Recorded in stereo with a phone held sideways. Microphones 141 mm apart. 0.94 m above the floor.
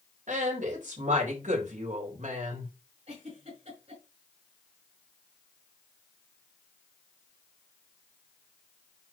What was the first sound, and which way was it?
A woman speaking, 60° right (ahead or behind).